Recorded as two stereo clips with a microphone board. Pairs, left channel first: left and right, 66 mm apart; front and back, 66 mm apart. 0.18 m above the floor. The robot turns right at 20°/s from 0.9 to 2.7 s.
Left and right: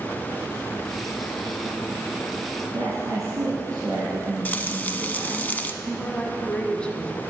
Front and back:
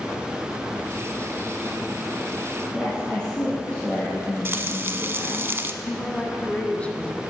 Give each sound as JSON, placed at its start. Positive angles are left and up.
{"t": 2.7, "sound": "a woman speaking", "azimuth_deg": -75, "distance_m": 2.0}
{"t": 4.5, "sound": "frying", "azimuth_deg": 140, "distance_m": 0.6}
{"t": 5.8, "sound": "a woman speaking", "azimuth_deg": 40, "distance_m": 1.2}